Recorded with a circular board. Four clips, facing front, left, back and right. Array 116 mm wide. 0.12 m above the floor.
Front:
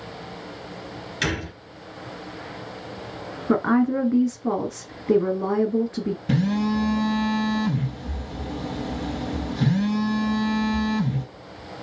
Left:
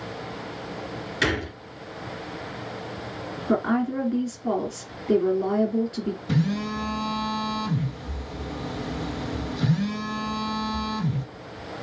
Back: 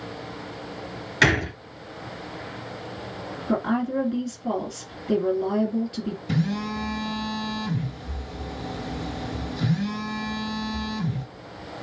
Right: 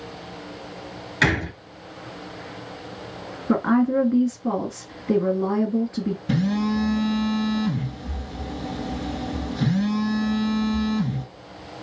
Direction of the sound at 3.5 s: 20° right.